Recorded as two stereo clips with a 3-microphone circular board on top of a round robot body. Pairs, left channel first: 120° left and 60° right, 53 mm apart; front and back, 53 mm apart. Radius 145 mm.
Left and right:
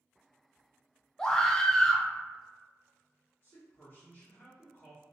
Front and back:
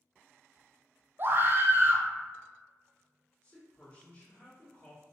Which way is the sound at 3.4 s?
70° left.